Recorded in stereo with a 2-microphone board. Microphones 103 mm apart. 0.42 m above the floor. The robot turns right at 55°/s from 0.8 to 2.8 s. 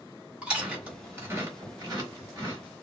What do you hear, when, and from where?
0.4 s chewing: 10° right (ahead or behind), 1.8 m; by 2.6 s 35° right (ahead or behind), 1.8 m